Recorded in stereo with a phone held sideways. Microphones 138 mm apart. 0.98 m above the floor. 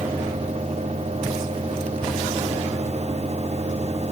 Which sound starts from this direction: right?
A fan, at 0.0 s.